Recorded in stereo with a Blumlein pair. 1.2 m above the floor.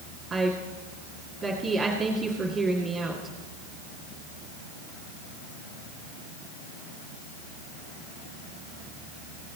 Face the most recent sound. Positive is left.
turn(degrees=-15)